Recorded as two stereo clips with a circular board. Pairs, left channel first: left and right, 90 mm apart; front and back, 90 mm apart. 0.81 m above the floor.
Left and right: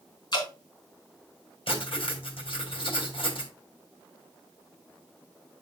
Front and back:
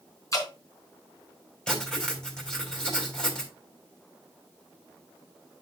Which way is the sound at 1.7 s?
80° left.